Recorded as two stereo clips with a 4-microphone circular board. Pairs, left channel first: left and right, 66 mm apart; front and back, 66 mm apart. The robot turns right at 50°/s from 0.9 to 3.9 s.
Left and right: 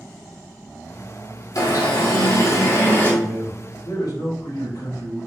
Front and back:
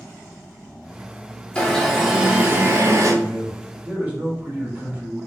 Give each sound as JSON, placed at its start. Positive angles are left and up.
{"t": 1.6, "sound": "an alarm", "azimuth_deg": 70, "distance_m": 2.5}
{"t": 3.2, "sound": "a man speaking", "azimuth_deg": 80, "distance_m": 4.0}